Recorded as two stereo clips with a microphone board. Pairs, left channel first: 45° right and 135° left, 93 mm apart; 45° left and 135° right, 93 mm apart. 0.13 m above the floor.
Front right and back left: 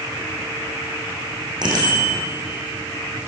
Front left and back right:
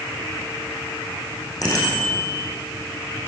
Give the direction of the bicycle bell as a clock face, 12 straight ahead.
9 o'clock.